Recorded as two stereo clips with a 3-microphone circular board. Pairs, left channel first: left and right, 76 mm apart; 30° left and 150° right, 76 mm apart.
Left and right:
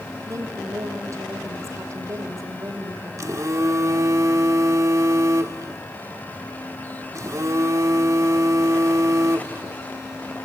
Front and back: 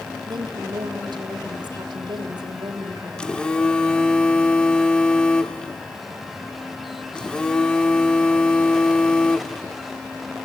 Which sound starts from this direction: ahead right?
A phone buzzing, at 3.2 s.